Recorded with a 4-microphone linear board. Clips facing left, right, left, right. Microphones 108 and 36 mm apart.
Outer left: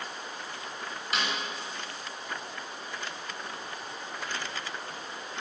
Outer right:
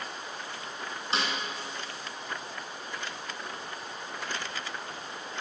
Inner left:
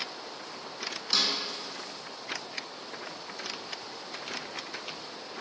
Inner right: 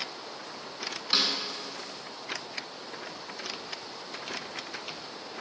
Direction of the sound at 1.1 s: 30° right (ahead or behind).